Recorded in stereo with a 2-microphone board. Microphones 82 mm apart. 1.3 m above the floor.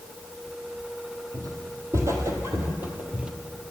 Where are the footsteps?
45° right (ahead or behind), 1.9 m; by 3.3 s 15° right (ahead or behind), 1.3 m.